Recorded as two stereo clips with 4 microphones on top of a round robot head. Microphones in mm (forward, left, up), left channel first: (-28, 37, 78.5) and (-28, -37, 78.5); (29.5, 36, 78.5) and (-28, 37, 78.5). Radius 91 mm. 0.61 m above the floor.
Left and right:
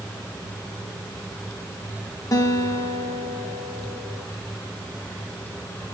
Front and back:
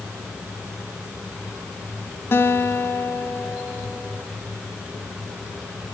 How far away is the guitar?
About 2.5 m.